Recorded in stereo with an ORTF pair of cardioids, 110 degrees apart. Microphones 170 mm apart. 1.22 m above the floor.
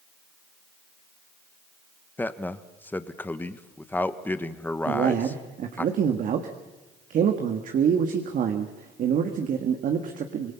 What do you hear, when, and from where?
2.2 s a man speaking: 10° left, 1.3 m
4.8 s a man speaking: 55° right, 1.7 m